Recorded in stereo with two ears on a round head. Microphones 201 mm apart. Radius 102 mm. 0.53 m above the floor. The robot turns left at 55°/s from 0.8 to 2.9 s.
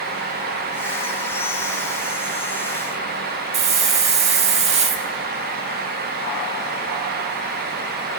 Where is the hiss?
30° right (ahead or behind), 0.6 m.